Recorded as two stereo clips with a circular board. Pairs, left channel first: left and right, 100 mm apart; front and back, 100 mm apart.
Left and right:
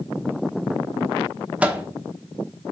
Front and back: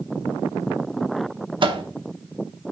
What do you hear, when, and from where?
1.6 s a microwave: 165° right, 0.9 m